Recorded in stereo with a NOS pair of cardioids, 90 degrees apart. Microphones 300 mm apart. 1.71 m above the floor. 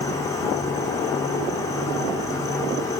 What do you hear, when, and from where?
0.0 s an insect: 10° left, 4 m